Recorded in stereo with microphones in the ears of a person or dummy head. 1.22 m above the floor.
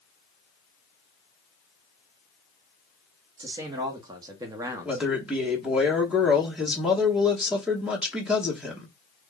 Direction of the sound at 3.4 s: 20° right (ahead or behind).